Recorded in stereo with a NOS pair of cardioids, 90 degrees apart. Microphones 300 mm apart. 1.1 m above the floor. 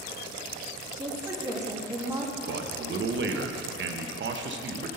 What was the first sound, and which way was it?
A woman speaking, 10° right.